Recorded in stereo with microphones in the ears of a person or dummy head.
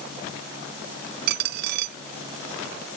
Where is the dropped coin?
60° right (ahead or behind).